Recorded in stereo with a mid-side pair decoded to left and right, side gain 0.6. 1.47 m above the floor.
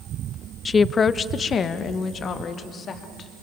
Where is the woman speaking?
25° left, 0.6 m; by 3.3 s 40° left, 3.5 m.